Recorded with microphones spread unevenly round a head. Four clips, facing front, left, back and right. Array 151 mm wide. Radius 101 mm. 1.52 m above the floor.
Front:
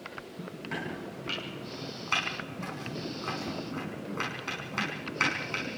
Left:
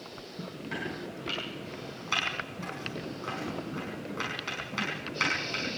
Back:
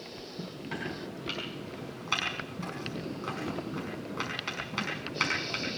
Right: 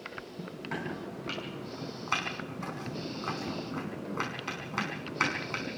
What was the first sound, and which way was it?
Chopping, 105° right.